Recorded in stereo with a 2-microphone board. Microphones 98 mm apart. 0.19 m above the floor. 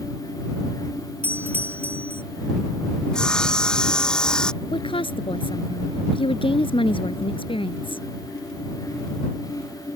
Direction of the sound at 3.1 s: 5° left (ahead or behind).